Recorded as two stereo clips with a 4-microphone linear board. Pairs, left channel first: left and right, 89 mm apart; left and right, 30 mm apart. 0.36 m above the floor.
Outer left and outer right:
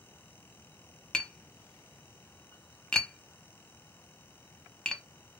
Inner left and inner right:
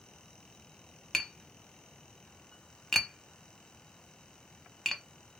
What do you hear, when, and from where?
1.1 s tapping: 10° left (ahead or behind), 0.6 m